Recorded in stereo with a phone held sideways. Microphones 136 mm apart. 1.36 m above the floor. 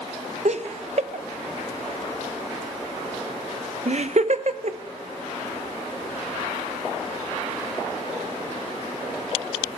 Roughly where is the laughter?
Right.